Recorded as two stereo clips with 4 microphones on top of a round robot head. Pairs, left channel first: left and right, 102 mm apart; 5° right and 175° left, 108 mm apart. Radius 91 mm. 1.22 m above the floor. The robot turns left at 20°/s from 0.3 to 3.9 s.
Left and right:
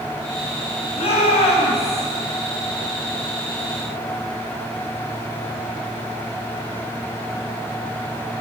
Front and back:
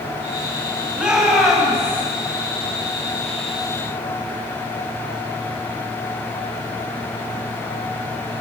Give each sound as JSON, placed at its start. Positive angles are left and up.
{"t": 0.9, "sound": "a shout", "azimuth_deg": 100, "distance_m": 8.5}